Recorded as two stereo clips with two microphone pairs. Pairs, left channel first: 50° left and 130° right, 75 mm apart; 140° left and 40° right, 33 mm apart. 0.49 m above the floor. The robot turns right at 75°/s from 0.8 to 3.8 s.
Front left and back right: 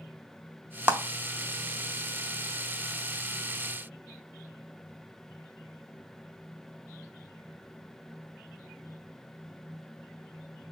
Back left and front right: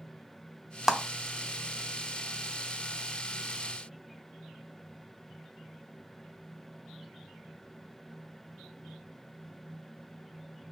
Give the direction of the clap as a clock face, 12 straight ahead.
4 o'clock.